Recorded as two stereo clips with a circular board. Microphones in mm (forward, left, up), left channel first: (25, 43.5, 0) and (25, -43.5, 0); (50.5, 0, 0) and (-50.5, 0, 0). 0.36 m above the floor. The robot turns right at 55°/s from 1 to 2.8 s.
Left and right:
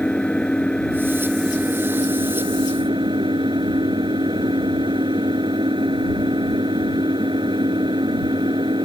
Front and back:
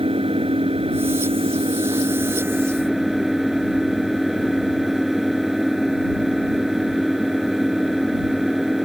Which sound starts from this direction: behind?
An engine running, at 0.0 s.